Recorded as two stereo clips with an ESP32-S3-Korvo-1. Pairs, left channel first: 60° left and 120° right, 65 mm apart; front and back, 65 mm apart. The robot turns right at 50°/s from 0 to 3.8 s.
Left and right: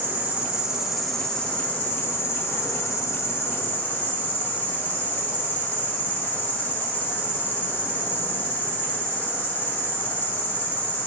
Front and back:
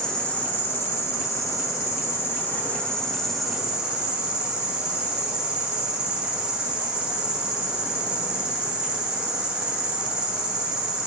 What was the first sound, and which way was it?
An insect, 80° right.